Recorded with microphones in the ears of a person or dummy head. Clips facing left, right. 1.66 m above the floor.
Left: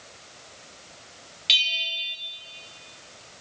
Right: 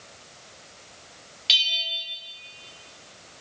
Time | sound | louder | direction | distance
1.5 | a bell | right 1 dB | 5° right (ahead or behind) | 0.9 m